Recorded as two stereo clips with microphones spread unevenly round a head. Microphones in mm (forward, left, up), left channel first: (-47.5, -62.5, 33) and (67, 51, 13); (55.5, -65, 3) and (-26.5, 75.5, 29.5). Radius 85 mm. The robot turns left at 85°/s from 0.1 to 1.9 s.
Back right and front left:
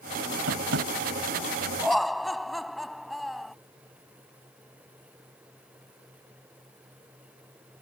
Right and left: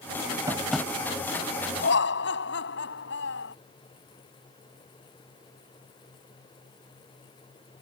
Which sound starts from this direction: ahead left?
Tapping, at 0.5 s.